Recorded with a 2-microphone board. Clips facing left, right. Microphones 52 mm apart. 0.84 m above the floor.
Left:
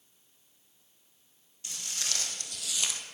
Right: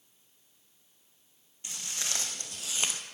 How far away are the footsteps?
About 2.5 m.